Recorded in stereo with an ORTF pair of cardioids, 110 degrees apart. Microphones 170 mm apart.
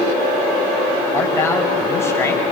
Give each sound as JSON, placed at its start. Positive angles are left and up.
{"t": 1.1, "sound": "a man speaking", "azimuth_deg": 15, "distance_m": 5.5}